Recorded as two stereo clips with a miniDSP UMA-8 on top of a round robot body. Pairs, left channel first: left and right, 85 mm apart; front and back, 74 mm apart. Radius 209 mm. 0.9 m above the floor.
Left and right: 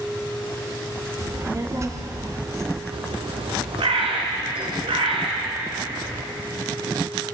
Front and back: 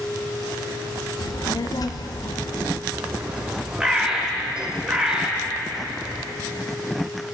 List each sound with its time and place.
1.2 s a child speaking: 35° right, 1.3 m
2.9 s a bird: 100° right, 1.6 m